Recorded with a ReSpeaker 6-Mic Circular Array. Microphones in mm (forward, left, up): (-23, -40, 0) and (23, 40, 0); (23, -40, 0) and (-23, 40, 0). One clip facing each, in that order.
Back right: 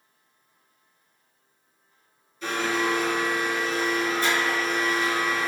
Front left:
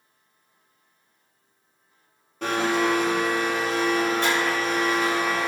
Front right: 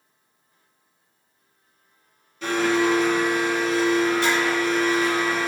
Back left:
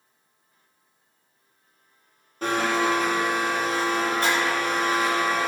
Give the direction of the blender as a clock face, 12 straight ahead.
9 o'clock.